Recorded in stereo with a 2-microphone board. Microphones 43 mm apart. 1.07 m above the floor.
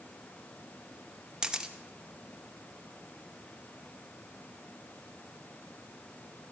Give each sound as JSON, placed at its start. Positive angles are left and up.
{"t": 1.4, "sound": "a camera shutter", "side_deg": -15, "distance_m": 0.8}